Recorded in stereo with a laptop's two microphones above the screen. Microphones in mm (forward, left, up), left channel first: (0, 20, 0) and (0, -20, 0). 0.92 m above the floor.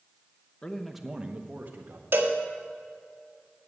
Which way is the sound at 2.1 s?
60° right (ahead or behind).